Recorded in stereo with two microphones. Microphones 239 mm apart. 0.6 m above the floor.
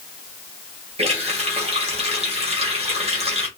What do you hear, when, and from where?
1.0 s a running tap: 25° right (ahead or behind), 1.8 m